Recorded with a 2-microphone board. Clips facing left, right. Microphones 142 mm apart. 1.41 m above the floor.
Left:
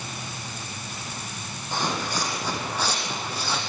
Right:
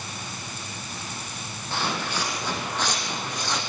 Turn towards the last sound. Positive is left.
turn(degrees=5)  # may be behind; listen again after turning